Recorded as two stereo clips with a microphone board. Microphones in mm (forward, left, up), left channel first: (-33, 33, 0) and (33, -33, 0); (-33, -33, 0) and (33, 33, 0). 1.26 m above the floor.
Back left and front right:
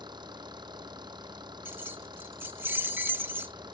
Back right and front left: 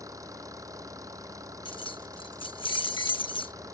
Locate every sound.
0.0 s an engine running: 10° right
1.6 s keys jangling: 110° right